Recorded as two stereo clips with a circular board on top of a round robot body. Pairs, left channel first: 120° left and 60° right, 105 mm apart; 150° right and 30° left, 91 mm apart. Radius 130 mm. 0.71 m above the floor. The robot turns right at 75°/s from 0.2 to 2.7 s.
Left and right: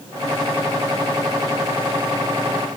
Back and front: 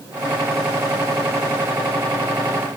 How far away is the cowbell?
I don't hear a cowbell.